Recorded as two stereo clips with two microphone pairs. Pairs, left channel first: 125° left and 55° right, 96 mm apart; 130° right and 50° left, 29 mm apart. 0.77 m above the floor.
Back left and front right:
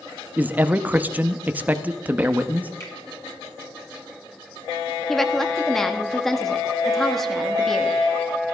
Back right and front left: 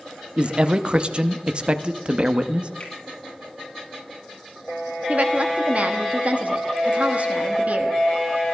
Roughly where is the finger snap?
Behind.